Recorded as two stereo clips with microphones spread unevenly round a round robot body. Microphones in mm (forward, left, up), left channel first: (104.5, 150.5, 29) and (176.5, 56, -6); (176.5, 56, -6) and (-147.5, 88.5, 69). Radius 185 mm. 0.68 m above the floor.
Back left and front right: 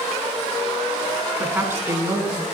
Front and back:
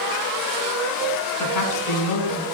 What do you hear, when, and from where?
1.4 s a woman speaking: 20° left, 7.5 m; by 2.4 s 10° left, 8 m